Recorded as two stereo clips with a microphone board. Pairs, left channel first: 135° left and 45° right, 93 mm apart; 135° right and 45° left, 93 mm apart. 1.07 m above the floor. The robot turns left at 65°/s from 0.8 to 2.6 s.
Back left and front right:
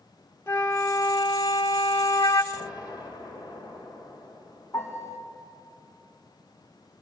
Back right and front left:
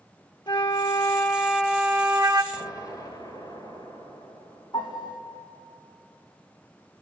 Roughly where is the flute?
Behind.